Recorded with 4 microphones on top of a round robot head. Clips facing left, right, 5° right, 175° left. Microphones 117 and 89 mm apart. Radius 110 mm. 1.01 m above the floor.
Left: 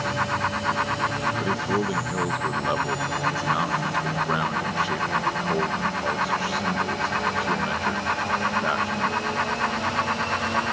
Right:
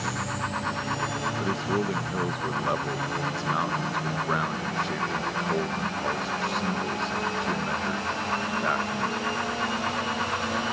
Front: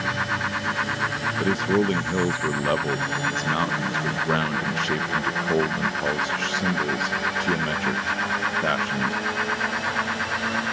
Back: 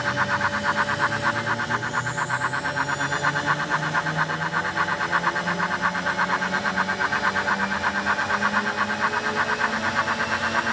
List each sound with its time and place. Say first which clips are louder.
1.4 s a man speaking: left 1 dB, front 4 dB; 5° left